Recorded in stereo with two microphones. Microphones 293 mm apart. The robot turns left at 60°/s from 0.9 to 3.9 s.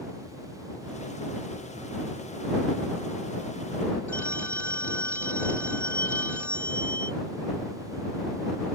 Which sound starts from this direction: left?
A phone ringing, at 4.1 s.